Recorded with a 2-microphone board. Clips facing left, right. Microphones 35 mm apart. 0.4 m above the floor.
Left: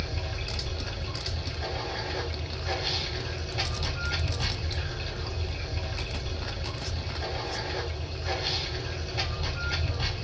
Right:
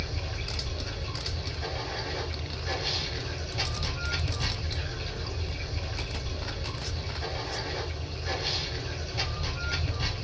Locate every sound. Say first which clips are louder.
0.0 s running water: left 1 dB; 15° left (ahead or behind), 1.3 m